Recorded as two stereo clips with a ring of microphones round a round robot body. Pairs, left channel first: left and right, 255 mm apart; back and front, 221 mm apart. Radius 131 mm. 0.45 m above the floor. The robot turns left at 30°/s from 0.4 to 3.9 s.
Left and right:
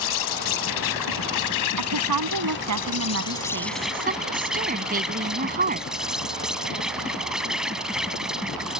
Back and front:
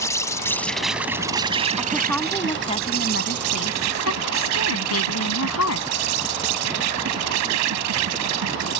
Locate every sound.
0.0 s an insect: 105° left; by 8.8 s straight ahead
1.8 s a woman speaking: 85° right; by 5.9 s 145° right